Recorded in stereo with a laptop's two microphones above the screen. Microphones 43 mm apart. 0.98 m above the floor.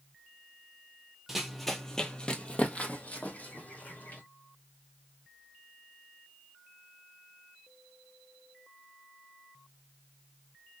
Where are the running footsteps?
5° right (ahead or behind), 1.0 m; by 4.2 s 45° left (ahead or behind), 2 m.